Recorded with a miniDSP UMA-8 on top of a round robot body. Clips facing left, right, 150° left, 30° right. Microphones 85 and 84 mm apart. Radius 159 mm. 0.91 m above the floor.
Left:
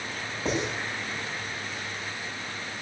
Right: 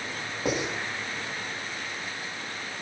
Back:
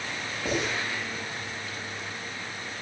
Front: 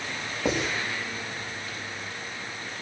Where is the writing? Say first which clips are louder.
Even, front 2 dB; 10° right, 7 m.